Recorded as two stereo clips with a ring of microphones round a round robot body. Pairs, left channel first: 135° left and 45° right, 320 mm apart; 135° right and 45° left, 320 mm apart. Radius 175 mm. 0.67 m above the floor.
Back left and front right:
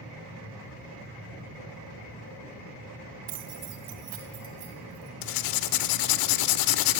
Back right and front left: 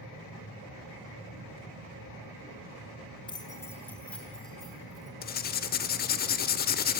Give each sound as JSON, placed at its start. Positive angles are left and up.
{"t": 3.3, "sound": "keys jangling", "azimuth_deg": -60, "distance_m": 1.4}
{"t": 5.2, "sound": "writing", "azimuth_deg": 160, "distance_m": 0.9}